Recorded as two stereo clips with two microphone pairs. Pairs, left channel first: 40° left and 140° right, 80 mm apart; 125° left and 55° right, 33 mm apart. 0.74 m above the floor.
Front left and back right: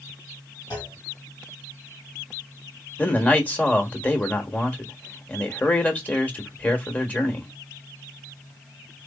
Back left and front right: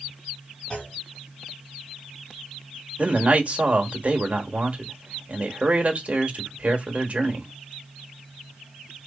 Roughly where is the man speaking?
Ahead right.